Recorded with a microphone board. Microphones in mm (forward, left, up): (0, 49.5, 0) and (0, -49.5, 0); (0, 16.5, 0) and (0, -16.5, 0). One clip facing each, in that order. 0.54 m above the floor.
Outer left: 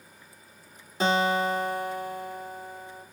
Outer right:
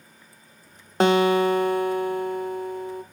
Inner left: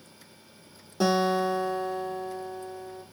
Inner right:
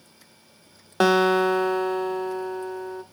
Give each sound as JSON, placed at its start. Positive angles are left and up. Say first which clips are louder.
{"t": 1.0, "sound": "a guitar", "louder": "outer right 6 dB, inner right 6 dB", "side_deg": -65, "distance_m": 0.8}